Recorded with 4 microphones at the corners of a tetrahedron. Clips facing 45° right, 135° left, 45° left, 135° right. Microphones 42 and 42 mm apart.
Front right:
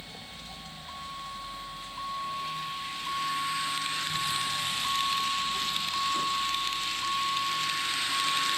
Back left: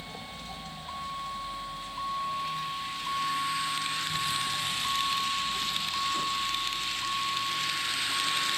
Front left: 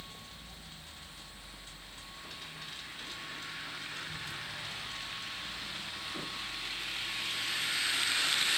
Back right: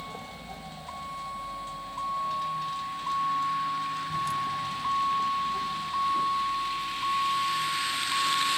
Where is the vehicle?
160° right; by 8.6 s 125° right.